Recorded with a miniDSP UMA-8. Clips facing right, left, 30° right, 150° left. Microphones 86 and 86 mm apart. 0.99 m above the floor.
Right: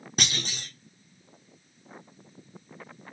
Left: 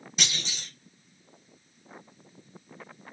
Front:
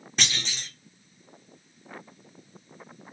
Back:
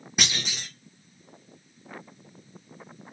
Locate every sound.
0.2 s a clunk: 130° right, 1.2 m